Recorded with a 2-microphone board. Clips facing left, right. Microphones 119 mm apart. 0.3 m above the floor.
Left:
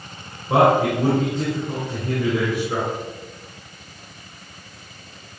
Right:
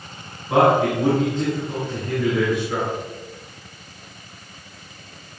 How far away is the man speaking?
About 3.5 m.